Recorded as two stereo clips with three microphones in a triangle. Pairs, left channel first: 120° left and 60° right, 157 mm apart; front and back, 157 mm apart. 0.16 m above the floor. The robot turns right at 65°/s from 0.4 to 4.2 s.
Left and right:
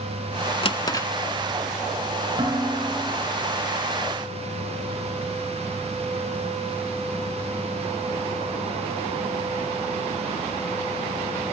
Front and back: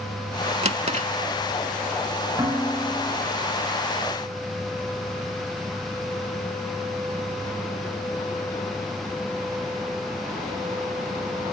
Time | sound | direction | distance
0.6 | a drawer | 160° left | 0.5 m
2.4 | dishes clattering | 115° right | 7 m